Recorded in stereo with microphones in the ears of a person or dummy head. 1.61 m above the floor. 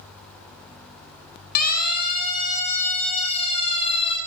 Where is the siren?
60° left (ahead or behind), 5 m; by 4.2 s 35° left (ahead or behind), 7 m.